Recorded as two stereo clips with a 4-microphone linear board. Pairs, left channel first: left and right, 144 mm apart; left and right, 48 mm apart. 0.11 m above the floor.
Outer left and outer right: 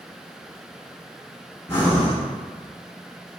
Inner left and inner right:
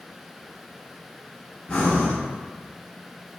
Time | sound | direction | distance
1.7 | breathing | 20° left (ahead or behind) | 1.7 m